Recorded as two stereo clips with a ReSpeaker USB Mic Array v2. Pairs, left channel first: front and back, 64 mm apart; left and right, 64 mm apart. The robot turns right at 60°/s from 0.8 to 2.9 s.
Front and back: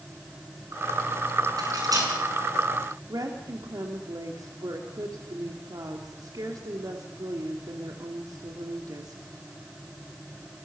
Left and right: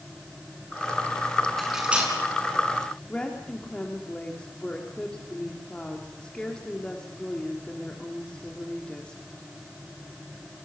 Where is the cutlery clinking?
175° left, 7 m; by 2.1 s 150° right, 7 m.